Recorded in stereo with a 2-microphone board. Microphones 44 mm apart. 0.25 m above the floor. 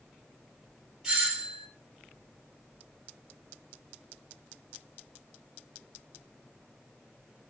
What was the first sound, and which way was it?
A doorbell, 10° right (ahead or behind).